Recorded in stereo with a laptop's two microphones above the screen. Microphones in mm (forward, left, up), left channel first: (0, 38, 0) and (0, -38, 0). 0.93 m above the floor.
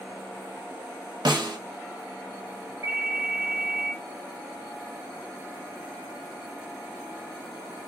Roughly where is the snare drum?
Right.